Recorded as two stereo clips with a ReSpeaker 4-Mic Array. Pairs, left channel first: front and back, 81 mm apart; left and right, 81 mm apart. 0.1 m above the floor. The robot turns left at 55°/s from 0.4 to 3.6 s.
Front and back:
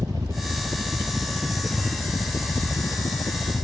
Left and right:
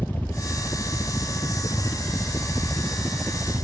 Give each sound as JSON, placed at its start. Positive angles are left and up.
{"t": 0.0, "sound": "a helicopter", "azimuth_deg": 150}